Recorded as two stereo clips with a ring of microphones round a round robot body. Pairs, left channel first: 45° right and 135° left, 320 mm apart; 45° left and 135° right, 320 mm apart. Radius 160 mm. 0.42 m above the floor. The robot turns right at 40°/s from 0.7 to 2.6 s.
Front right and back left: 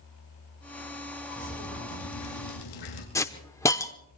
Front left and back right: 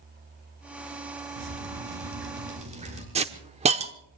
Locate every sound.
1.4 s dripping: 115° right, 4 m; by 3.0 s 65° right, 4 m
3.1 s a hiss: 110° right, 1.0 m